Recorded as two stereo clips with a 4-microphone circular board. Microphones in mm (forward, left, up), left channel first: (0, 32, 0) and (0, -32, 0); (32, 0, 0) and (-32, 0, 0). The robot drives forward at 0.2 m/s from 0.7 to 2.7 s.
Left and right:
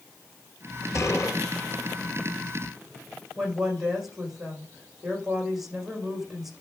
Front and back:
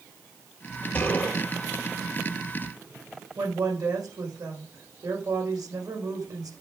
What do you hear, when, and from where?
0.9 s a gunshot: 60° left, 4 m; by 1.4 s 65° left, 4 m
3.4 s a woman speaking: 175° right, 7.5 m